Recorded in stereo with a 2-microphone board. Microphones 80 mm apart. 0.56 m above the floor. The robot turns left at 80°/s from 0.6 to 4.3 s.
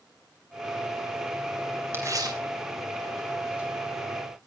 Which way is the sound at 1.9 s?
30° right (ahead or behind).